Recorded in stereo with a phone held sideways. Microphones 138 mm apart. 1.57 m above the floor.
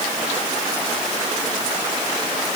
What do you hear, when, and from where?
Only background noise.